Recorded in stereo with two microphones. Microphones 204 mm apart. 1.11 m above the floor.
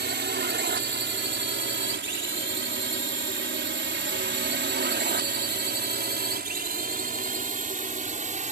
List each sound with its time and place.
0.0 s a drone: 60° right (ahead or behind); by 8.5 s 40° right (ahead or behind)